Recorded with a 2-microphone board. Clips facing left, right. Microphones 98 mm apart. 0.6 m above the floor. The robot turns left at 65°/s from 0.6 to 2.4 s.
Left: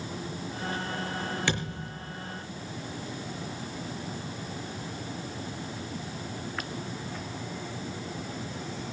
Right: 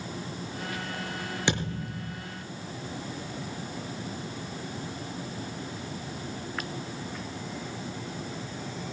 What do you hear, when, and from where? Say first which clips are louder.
1.5 s a thud: right 2 dB; 20° right, 6 m; by 2.2 s 65° right, 6 m